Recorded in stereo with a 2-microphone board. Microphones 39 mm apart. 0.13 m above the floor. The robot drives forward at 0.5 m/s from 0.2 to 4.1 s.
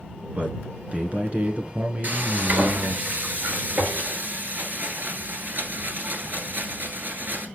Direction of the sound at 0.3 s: 35° right (ahead or behind).